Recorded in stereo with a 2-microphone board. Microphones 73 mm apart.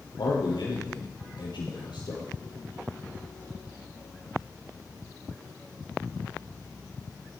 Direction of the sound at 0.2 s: 80° left.